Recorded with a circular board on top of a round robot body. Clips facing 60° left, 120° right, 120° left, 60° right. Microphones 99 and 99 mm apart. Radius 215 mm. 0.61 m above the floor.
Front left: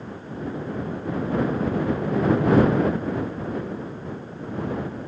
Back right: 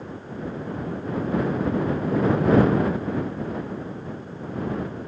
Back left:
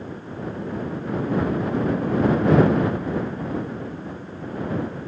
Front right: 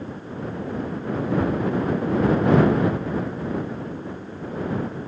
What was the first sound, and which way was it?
Only background noise.